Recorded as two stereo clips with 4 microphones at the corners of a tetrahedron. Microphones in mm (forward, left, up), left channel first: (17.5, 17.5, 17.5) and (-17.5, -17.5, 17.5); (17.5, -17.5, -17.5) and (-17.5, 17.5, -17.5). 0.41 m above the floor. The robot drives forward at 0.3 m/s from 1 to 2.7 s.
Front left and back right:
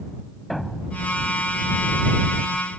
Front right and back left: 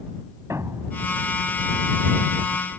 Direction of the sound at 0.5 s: 135° left.